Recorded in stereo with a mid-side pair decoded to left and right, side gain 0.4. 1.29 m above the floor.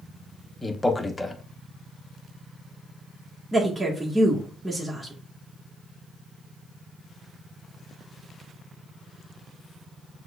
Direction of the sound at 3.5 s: 15° right.